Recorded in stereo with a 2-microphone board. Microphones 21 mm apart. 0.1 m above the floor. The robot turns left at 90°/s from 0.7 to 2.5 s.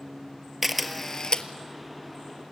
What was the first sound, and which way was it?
A camera shutter, 10° right (ahead or behind).